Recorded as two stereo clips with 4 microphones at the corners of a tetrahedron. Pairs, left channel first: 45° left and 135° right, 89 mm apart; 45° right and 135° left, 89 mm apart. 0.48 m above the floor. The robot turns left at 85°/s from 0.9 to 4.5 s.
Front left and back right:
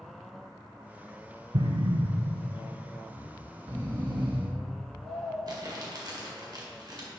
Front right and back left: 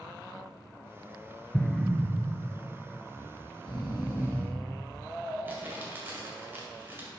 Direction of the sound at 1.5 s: 120° right.